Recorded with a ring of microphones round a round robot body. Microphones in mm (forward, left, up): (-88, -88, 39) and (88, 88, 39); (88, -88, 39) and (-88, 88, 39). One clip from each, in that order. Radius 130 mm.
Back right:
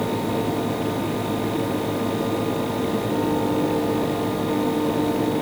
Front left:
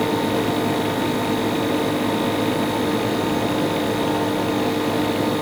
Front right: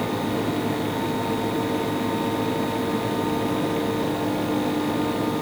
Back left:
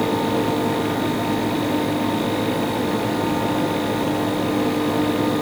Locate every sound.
Only background noise.